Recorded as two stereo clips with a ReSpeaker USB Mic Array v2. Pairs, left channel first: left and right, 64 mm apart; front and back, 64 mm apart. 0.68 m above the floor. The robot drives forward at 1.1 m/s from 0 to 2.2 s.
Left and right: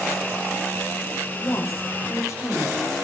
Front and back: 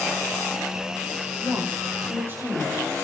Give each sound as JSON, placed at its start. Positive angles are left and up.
{"t": 1.4, "sound": "a woman speaking", "azimuth_deg": 130, "distance_m": 5.5}